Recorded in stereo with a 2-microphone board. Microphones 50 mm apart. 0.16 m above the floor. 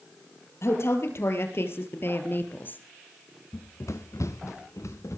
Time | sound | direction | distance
0.6 | a woman speaking | 60° left (ahead or behind) | 4.5 m
3.5 | running footsteps | 65° left (ahead or behind) | 0.9 m